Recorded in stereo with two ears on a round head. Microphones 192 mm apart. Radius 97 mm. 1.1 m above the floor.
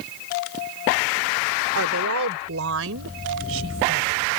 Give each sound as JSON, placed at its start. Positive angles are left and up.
{"t": 1.8, "sound": "a woman speaking", "side_deg": -70}